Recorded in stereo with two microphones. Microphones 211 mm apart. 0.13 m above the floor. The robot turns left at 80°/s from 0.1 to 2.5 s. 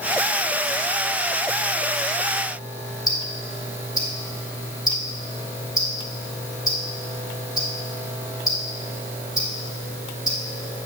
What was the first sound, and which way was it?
Ticking, 20° left (ahead or behind).